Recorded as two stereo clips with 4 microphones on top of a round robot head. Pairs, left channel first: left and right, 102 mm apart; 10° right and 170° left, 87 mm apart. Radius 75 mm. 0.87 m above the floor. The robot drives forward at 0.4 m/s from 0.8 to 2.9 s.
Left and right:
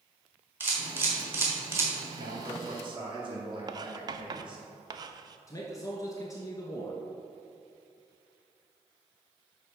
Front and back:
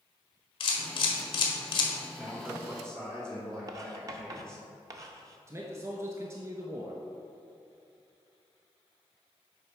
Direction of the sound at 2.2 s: 120° right.